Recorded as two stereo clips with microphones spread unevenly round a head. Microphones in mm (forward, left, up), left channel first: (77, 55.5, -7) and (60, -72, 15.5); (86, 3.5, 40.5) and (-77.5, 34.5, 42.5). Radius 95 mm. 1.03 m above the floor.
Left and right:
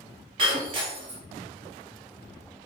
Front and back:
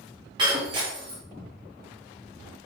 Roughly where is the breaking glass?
Behind right.